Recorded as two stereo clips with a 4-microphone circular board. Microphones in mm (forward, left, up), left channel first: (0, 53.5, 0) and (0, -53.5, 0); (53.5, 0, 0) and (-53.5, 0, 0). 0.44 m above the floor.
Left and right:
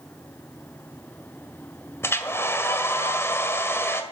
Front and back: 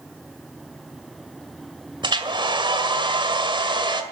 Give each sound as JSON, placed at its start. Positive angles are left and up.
{"t": 2.0, "sound": "a hair dryer", "azimuth_deg": 150, "distance_m": 1.7}